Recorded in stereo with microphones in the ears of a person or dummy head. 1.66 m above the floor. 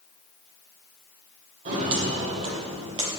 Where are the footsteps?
45° right (ahead or behind), 4 m; by 3.2 s 25° right (ahead or behind), 2.5 m.